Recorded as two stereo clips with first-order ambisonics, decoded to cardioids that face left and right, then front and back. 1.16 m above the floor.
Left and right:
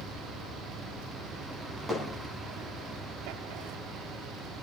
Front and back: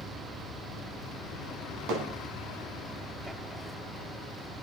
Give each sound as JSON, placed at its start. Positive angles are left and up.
{"t": 1.9, "sound": "hammering", "azimuth_deg": 175, "distance_m": 5.5}